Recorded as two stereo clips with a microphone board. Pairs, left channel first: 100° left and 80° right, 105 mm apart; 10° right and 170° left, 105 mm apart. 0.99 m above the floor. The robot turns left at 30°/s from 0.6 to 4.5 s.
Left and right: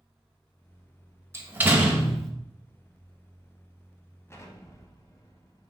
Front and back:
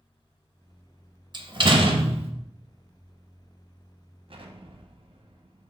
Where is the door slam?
145° right, 0.5 m; by 2.3 s 170° right, 0.5 m.